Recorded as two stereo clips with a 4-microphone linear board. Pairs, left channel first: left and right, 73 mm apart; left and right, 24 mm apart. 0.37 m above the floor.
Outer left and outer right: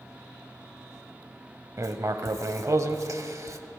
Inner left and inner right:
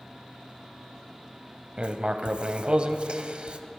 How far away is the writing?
About 0.6 m.